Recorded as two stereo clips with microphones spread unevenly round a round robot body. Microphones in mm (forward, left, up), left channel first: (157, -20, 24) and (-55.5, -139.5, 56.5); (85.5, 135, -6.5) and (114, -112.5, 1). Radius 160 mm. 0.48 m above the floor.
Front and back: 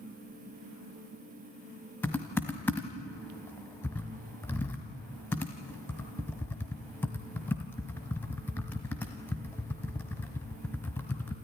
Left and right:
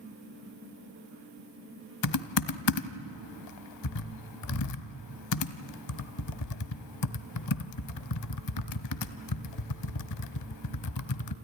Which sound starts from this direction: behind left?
Typing on a keyboard, at 2.0 s.